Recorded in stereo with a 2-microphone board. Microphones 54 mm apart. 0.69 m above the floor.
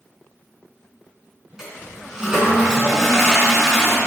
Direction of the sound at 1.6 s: 10° right (ahead or behind).